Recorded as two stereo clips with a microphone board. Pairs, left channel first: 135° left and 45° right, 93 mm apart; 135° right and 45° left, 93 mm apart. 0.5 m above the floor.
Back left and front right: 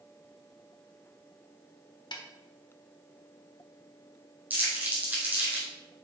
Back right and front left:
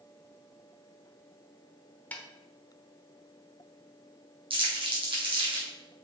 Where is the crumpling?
25° left, 3.5 m.